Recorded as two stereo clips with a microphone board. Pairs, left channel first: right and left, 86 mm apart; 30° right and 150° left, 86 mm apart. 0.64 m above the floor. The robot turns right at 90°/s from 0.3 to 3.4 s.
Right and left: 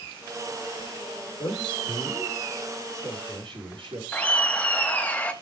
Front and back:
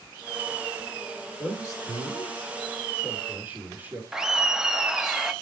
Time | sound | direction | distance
1.4 | a man speaking | 100° right | 1.9 m
4.1 | laughter | 140° right | 0.6 m